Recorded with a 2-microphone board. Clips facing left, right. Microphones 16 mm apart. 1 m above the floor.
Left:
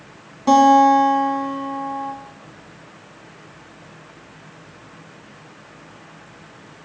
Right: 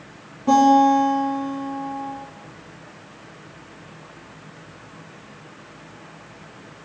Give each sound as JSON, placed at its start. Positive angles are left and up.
{"t": 0.5, "sound": "a guitar", "side_deg": 70, "distance_m": 1.9}